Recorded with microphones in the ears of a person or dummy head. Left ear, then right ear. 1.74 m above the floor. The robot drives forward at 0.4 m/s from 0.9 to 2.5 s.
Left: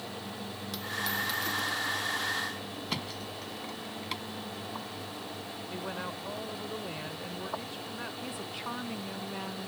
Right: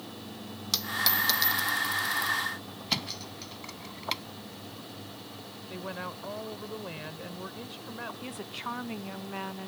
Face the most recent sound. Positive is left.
turn(degrees=-15)  # may be behind; listen again after turning